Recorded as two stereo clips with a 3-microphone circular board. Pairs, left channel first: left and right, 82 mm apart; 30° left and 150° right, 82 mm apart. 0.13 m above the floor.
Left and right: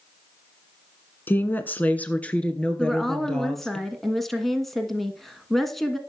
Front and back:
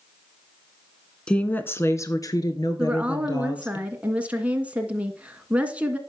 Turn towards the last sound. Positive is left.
turn(degrees=170)